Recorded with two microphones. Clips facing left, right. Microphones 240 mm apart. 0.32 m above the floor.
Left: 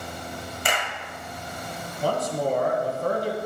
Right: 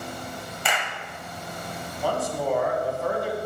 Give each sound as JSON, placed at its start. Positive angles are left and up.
{"t": 0.7, "sound": "a clap", "side_deg": 45, "distance_m": 1.4}
{"t": 2.0, "sound": "a man speaking", "side_deg": 45, "distance_m": 2.5}